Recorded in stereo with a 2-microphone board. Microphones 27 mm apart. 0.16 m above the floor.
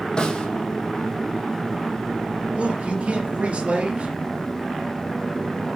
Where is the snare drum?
35° left (ahead or behind), 3 m.